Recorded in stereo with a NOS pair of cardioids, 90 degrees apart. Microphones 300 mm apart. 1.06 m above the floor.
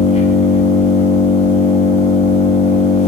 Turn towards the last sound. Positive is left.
turn(degrees=25)